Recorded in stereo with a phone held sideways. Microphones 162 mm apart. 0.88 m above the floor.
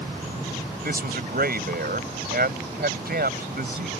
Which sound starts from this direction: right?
A man speaking, at 0.8 s.